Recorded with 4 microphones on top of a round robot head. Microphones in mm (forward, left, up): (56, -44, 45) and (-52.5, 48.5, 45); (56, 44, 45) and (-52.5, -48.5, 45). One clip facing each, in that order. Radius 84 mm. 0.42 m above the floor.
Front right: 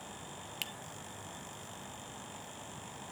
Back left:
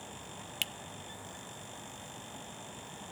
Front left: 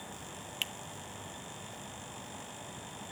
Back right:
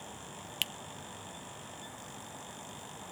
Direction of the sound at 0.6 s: 170° right.